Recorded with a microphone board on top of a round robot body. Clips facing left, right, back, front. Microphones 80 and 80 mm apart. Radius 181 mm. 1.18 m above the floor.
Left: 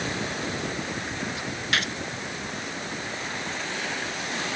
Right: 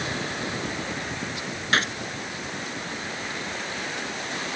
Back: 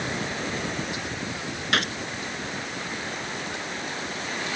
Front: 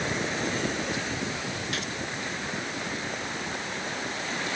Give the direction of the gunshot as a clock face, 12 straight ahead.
5 o'clock.